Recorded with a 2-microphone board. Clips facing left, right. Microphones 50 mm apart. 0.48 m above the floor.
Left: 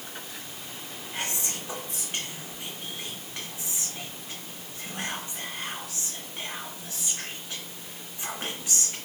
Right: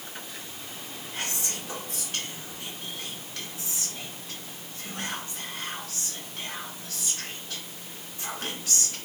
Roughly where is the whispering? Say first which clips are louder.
Left 1 dB; left.